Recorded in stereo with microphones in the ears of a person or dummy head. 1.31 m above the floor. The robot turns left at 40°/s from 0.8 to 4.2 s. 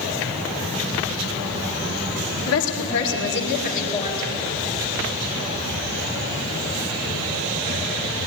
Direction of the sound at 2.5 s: 95° left.